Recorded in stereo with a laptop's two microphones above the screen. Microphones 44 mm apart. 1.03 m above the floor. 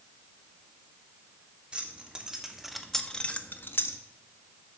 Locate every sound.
1.7 s keys jangling: 25° right (ahead or behind), 1.4 m; by 4.0 s 70° left (ahead or behind), 0.7 m